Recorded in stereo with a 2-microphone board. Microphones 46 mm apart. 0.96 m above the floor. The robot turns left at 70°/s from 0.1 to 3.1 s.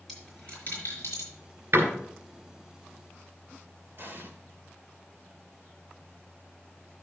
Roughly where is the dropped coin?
Centre.